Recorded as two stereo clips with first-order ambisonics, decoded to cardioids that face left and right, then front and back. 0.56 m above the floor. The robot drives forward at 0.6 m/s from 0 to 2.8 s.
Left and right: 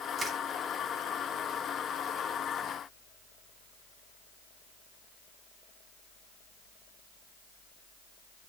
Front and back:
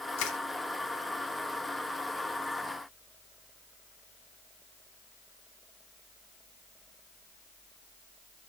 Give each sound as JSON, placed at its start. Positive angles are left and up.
{"t": 0.2, "sound": "crushing", "azimuth_deg": -15, "distance_m": 1.4}